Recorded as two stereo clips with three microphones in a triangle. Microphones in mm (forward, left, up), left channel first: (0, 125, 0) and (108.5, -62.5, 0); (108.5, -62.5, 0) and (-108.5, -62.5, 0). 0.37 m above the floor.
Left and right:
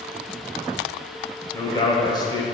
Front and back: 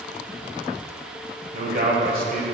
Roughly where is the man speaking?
Behind.